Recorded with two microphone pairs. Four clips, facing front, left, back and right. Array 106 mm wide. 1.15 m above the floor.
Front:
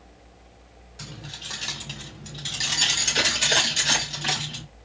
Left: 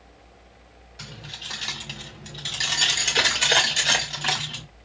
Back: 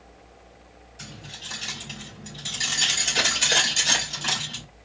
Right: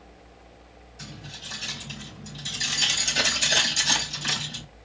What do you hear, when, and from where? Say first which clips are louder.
1.0 s keys jangling: left 1 dB, front 2 dB; 55° left, 2.5 m; by 4.6 s 95° left, 3 m